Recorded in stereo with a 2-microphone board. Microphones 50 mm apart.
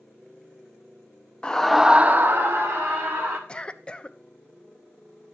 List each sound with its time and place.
1.4 s a scream: 20° left (ahead or behind), 0.6 m; by 3.4 s 60° right (ahead or behind), 1.4 m
3.5 s a cough: 25° left (ahead or behind), 0.5 m